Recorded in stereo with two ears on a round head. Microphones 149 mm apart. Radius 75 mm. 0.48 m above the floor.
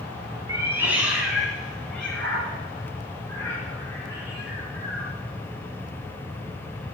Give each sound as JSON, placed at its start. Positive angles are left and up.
{"t": 0.5, "sound": "a cat meowing", "side_deg": -20, "distance_m": 2.5}